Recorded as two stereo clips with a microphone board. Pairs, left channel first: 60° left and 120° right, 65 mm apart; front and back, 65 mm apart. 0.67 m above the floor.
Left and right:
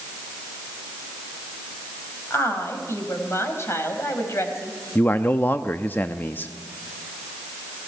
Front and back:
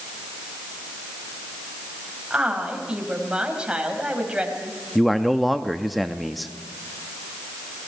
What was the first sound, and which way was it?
A woman speaking, 105° left.